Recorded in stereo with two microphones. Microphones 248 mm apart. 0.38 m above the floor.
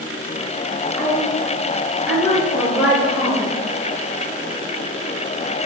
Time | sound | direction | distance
1.0 | a woman speaking | 25° left (ahead or behind) | 1.3 m